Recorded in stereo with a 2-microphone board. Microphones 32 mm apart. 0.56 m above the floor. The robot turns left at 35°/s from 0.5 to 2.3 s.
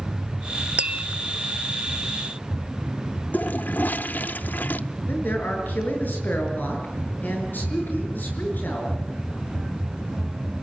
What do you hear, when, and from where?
0.8 s tapping: 40° right (ahead or behind), 0.6 m; by 1.1 s 50° right (ahead or behind), 0.6 m
3.3 s a toilet flushing: 65° left (ahead or behind), 0.6 m
5.1 s a man speaking: 70° left (ahead or behind), 7 m